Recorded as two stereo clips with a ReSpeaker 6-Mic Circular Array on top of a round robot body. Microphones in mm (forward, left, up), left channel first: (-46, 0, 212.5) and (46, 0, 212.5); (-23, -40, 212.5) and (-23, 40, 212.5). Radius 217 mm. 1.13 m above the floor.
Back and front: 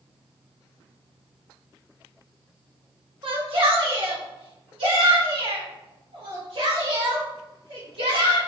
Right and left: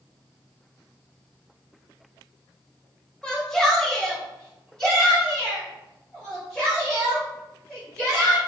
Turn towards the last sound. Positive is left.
turn(degrees=-5)